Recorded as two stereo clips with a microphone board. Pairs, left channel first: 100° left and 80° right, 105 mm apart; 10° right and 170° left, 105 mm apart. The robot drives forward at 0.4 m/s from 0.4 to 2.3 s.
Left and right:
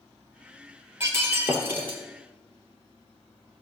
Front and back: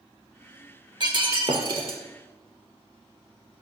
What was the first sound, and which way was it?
Breaking glass, 145° right.